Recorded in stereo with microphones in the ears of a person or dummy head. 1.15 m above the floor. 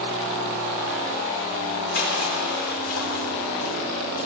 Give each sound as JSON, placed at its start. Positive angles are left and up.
{"t": 1.9, "sound": "crushing", "side_deg": 55, "distance_m": 4.5}